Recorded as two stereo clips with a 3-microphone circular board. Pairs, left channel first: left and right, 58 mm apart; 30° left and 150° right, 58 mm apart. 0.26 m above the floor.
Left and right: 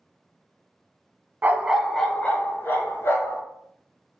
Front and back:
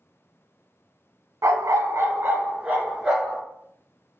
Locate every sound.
1.4 s a dog barking: 145° right, 0.5 m; by 3.4 s 130° left, 1.2 m